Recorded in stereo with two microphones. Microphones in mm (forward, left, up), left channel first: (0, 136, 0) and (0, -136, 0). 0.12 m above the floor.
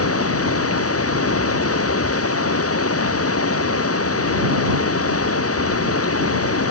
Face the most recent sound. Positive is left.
turn(degrees=55)  # may be behind; listen again after turning